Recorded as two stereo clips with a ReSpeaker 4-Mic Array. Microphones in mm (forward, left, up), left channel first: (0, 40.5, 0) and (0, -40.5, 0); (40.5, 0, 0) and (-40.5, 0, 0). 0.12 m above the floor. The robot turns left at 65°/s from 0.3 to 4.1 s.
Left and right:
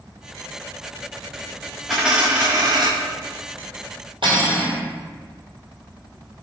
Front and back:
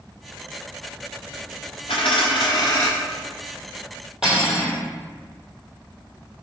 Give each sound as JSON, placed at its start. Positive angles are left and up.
{"t": 1.9, "sound": "a dropped coin", "azimuth_deg": 0, "distance_m": 1.3}
{"t": 4.2, "sound": "cutlery clinking", "azimuth_deg": -95, "distance_m": 1.8}